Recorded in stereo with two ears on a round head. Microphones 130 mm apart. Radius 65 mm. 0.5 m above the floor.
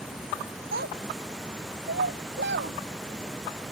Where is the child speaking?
70° right (ahead or behind); by 2.8 s 80° right.